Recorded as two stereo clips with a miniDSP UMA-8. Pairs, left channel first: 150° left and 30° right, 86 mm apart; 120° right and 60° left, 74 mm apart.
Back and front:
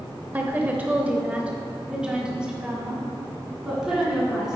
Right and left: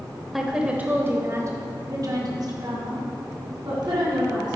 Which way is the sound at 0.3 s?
25° right.